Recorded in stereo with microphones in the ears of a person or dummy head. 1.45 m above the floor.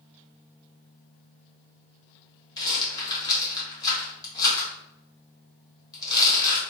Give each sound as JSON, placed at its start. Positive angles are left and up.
{"t": 2.6, "sound": "a rattle", "side_deg": 20, "distance_m": 1.4}